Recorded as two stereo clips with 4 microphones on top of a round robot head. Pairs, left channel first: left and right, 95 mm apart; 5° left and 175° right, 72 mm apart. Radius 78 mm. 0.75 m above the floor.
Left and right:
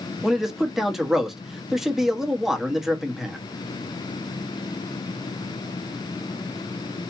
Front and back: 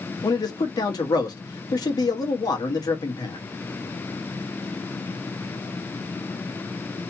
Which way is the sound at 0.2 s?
5° right.